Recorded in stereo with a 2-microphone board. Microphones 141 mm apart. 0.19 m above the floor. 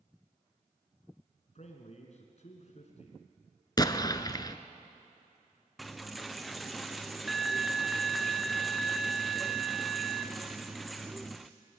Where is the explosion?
30° left (ahead or behind), 0.9 m.